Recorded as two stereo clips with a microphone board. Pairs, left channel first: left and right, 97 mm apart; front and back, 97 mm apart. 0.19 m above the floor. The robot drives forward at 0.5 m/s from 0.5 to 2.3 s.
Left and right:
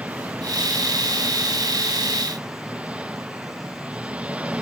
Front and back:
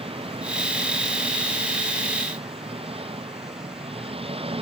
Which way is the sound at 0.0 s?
165° right.